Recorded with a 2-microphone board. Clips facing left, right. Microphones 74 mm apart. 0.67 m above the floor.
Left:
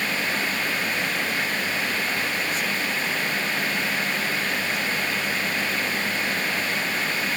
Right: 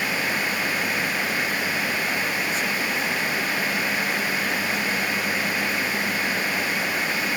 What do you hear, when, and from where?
Only background noise.